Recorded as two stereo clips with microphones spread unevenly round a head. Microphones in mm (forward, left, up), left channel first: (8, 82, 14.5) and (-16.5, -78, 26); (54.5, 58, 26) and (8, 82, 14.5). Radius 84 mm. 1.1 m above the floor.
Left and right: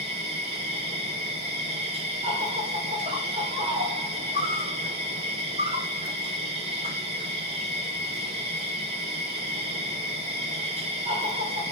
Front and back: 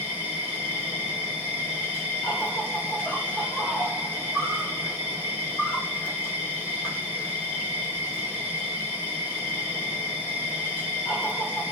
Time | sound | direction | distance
0.0 | an insect | 75° right | 1.4 m